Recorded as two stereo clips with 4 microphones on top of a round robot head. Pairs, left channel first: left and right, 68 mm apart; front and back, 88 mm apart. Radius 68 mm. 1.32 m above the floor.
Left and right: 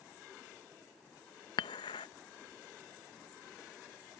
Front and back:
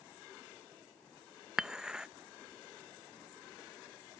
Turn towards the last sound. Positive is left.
turn(degrees=100)